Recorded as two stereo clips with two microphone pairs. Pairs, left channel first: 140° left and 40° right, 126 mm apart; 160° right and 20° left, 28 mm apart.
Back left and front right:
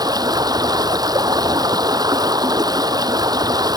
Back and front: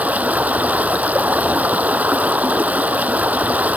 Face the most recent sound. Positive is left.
turn(degrees=15)